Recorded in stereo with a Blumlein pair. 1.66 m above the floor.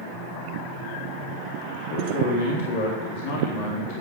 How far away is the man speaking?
About 3.5 m.